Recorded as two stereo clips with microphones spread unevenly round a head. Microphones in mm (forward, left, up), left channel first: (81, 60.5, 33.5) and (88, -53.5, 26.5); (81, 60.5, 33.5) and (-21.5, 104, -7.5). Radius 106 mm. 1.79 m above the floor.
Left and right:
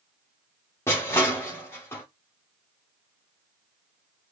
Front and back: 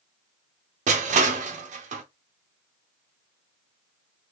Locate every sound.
0.9 s crushing: 165° left, 0.5 m